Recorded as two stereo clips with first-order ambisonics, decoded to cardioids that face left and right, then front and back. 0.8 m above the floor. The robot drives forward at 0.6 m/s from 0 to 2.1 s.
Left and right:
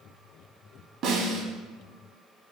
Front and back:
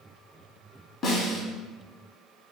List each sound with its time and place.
1.0 s a snare drum: 55° right, 0.9 m; by 1.4 s 75° right, 0.8 m